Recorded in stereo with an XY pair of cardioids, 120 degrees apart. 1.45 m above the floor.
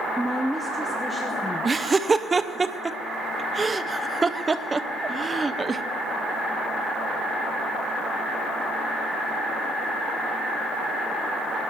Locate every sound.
0.2 s a woman speaking: 5° right, 0.5 m
1.6 s laughter: 25° right, 0.7 m